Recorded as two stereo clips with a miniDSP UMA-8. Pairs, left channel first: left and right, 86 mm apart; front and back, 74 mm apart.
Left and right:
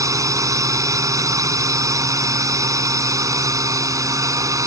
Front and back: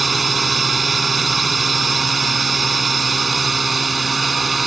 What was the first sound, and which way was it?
A drone, 90° right.